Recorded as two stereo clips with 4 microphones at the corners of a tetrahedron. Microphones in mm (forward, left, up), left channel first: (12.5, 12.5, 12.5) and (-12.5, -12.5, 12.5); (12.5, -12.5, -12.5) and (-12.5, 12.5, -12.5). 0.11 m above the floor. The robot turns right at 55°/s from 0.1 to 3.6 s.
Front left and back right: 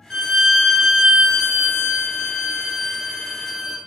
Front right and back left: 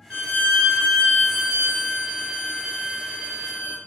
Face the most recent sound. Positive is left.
turn(degrees=150)